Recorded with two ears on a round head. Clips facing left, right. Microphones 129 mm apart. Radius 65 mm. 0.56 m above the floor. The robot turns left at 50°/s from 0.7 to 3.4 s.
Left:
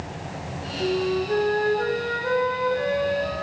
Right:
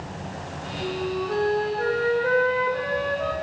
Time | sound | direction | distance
0.8 | a flute | 45° left | 0.6 m